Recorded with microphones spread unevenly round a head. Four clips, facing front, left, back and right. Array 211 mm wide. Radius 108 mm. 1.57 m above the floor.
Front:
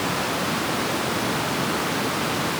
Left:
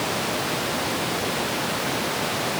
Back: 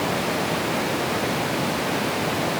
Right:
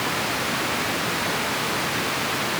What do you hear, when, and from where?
Only background noise.